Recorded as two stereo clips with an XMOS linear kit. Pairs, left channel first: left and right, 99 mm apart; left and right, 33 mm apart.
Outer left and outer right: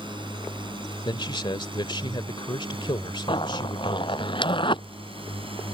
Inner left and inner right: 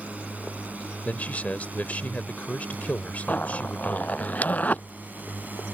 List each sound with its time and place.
0.0 s a drone: 50° right (ahead or behind); by 5.8 s 65° right (ahead or behind)
1.1 s a man speaking: 55° left (ahead or behind)
3.3 s a zipper: 55° left (ahead or behind)